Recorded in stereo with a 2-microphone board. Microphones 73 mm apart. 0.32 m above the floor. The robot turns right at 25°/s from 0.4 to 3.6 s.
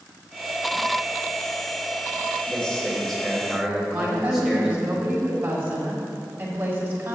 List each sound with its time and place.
2.5 s a man speaking: 15° left (ahead or behind), 1.7 m; by 4.9 s centre (ahead or behind), 1.7 m
3.9 s a woman speaking: 30° right (ahead or behind), 1.9 m